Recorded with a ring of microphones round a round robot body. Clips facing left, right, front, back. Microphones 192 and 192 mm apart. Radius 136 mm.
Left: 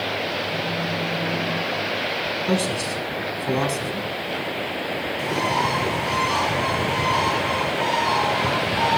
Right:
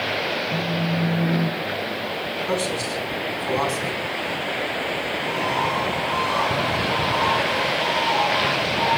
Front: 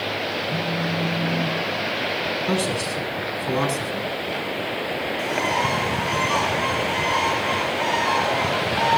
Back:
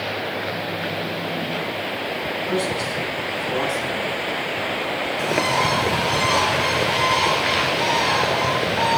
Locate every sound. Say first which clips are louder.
0.5 s a phone buzzing: right 2 dB, front 1 dB; 40° right, 6 m
2.5 s a man speaking: left 2 dB, back 1 dB; 30° left, 4 m
5.2 s a bird: left 3 dB, back 4 dB; 135° left, 3 m